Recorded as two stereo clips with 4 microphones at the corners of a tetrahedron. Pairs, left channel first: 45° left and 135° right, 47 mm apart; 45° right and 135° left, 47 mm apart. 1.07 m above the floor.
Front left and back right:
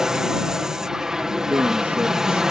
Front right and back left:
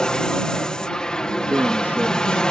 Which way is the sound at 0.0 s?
85° right.